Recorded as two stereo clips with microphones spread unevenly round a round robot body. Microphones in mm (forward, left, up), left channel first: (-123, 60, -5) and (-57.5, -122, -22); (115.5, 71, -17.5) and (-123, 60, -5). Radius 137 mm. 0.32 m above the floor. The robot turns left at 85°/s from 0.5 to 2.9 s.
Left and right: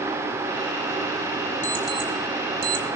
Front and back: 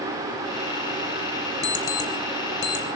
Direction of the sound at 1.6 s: 55° left.